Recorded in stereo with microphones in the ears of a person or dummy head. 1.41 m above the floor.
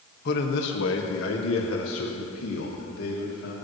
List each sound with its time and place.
0.2 s a man speaking: 60° left (ahead or behind), 2 m; by 3.5 s 75° left (ahead or behind), 4 m